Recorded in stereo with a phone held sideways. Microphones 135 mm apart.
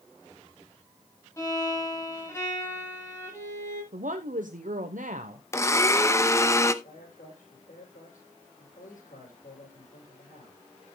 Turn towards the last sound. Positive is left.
turn(degrees=80)